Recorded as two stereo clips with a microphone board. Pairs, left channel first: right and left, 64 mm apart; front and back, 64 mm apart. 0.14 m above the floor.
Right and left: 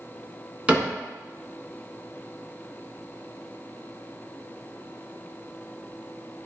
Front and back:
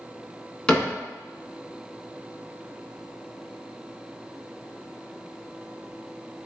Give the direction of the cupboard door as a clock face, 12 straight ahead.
10 o'clock.